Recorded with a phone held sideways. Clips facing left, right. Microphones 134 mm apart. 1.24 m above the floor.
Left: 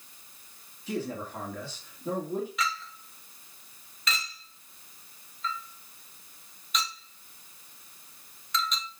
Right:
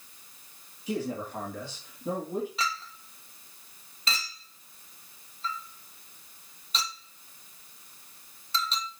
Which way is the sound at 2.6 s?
30° right (ahead or behind).